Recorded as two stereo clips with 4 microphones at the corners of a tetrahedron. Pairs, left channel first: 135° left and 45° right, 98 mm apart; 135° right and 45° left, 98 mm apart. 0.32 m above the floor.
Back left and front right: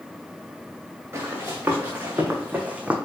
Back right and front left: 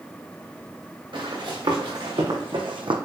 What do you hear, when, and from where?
1.1 s running footsteps: 20° left, 3 m; by 3.0 s 30° left, 0.9 m